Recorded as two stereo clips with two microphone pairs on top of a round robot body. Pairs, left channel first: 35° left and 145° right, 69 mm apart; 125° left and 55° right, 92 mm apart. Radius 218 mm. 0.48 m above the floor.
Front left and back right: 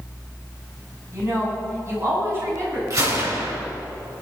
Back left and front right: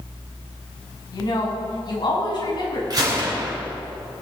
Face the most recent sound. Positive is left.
turn(degrees=-100)